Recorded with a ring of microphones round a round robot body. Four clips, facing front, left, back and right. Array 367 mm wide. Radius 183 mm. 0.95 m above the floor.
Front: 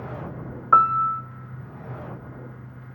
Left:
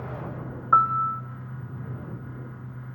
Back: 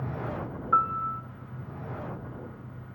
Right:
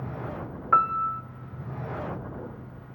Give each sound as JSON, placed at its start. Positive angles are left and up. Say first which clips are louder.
{"t": 0.7, "sound": "a piano", "louder": "left 2 dB, front 8 dB", "azimuth_deg": -15, "distance_m": 0.5}